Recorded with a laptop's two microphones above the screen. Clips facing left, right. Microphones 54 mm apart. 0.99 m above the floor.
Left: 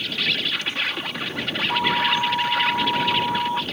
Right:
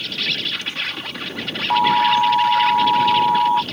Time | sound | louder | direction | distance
0.0 | an insect | even | 10° left (ahead or behind) | ?
1.7 | an alarm | right 7 dB | 35° right (ahead or behind) | ?